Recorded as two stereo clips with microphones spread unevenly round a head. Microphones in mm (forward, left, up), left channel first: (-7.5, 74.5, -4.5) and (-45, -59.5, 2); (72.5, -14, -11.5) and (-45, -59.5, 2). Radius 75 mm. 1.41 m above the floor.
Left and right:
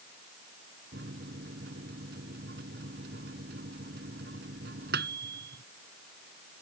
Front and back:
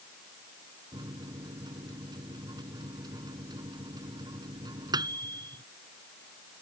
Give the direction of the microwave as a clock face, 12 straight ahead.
3 o'clock.